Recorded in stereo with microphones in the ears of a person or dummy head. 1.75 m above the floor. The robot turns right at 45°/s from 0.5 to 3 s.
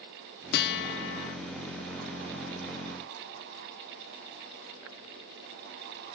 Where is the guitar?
60° left, 0.5 m; by 1.4 s 100° left, 0.5 m.